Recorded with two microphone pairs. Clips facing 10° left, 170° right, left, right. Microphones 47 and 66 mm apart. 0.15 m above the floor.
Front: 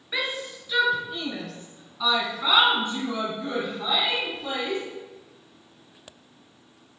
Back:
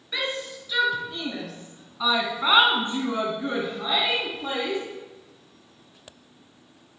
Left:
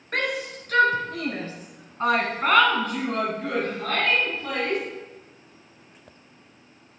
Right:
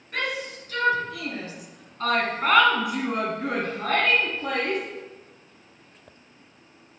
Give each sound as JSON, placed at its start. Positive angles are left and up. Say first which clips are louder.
{"t": 0.1, "sound": "a shout", "louder": "even, left 2 dB", "azimuth_deg": 85, "distance_m": 2.5}